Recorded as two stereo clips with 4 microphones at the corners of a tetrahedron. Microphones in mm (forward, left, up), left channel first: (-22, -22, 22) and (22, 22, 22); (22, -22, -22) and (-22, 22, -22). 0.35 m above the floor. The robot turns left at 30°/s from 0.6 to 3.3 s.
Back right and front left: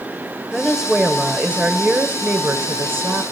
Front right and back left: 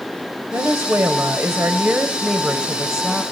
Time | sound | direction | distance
0.5 | a woman speaking | 130° left | 1.3 m